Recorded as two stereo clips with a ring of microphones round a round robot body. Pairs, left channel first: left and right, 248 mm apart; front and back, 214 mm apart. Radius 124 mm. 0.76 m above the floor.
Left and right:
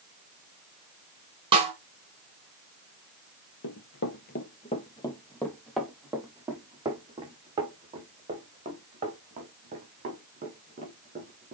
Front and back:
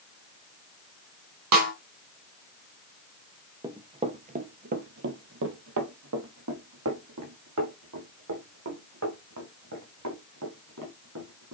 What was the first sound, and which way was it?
A snare drum, 160° right.